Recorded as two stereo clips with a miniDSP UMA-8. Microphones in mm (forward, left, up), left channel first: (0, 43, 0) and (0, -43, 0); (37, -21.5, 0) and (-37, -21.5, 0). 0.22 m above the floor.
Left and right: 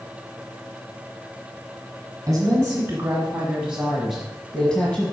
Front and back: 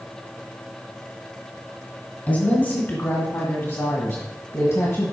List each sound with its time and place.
2.3 s a woman speaking: 60° right, 1.7 m; by 5.1 s 25° left, 1.5 m